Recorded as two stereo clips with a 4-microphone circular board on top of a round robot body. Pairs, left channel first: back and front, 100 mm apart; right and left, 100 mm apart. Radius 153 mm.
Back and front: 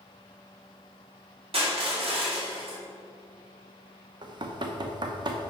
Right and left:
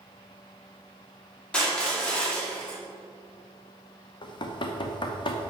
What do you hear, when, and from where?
1.5 s crushing: 10° right, 2.5 m
4.2 s knocking: 45° right, 0.8 m